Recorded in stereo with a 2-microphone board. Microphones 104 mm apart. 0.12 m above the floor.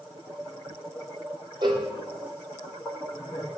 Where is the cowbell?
45° right (ahead or behind), 1.1 m.